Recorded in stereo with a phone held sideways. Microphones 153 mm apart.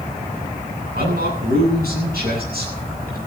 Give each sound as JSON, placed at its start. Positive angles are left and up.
{"t": 0.9, "sound": "a man speaking", "side_deg": -85, "distance_m": 9.5}